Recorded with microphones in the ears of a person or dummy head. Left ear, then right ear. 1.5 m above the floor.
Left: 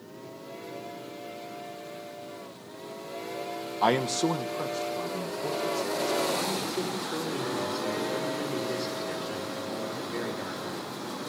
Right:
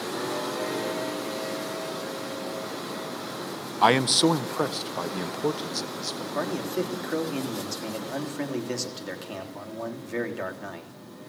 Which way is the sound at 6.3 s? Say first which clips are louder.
Right 1 dB; 45° right (ahead or behind).